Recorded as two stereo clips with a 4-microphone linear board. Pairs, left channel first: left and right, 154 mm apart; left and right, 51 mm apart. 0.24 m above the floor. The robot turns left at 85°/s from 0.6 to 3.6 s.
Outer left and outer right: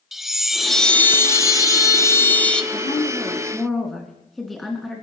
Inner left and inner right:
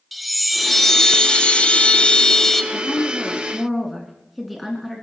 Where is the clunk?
No clunk in this recording.